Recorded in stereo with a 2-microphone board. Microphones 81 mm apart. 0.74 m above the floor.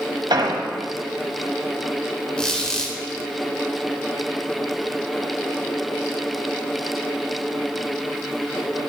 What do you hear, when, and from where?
0.3 s an explosion: 65° right (ahead or behind), 1.5 m
2.4 s a squeak: 10° left (ahead or behind), 1.6 m